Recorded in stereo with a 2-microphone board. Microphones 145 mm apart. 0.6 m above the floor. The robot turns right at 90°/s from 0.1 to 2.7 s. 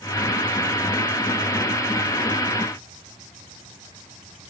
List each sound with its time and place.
Only background noise.